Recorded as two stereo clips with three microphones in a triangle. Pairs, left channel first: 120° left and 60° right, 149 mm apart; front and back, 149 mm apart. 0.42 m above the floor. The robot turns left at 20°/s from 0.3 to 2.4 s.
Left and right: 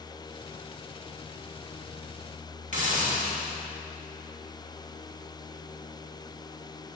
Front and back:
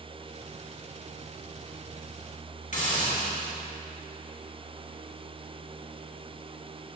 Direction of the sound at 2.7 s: 30° right.